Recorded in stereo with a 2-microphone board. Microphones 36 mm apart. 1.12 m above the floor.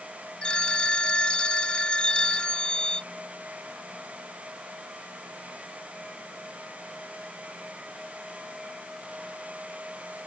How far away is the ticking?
I don't hear ticking.